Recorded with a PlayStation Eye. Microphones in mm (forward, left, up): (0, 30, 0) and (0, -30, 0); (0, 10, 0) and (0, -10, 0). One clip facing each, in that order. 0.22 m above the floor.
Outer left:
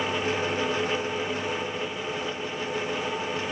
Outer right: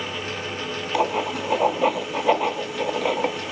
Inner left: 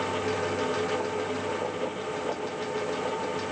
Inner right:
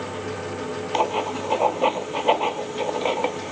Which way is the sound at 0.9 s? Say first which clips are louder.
Outer right 6 dB, inner right 6 dB; 75° right (ahead or behind).